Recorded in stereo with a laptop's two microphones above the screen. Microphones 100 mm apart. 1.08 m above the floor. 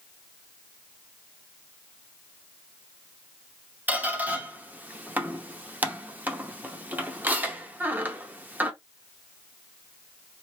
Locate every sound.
3.9 s a squeak: 15° right (ahead or behind), 0.7 m